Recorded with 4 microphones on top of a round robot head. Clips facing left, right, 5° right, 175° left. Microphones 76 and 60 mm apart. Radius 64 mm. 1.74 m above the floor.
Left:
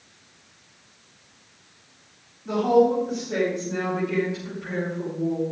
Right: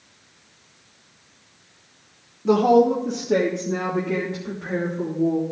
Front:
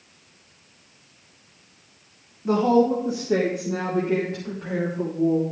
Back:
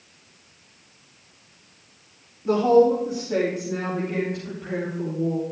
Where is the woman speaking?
85° right, 1.2 m; by 5.4 s 30° right, 4 m.